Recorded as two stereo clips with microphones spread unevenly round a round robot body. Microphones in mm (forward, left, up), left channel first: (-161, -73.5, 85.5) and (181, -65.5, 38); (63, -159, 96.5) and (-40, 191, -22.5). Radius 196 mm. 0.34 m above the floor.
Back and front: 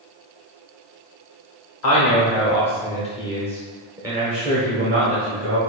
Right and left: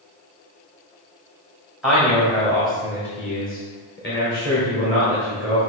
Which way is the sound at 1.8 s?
170° left.